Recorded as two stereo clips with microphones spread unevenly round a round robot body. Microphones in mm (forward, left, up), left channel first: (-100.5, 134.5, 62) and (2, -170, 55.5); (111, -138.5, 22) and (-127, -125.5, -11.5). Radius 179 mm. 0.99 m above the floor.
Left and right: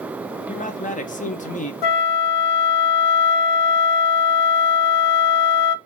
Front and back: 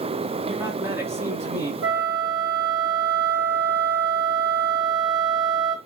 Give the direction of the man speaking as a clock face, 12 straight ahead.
7 o'clock.